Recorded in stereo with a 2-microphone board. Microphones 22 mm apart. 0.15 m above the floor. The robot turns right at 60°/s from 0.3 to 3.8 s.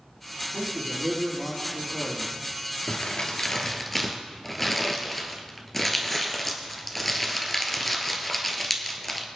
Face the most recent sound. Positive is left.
turn(degrees=10)  # may be behind; listen again after turning